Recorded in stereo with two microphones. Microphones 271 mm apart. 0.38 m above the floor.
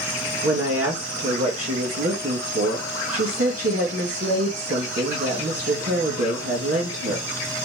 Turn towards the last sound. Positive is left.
turn(degrees=-50)  # may be behind; listen again after turning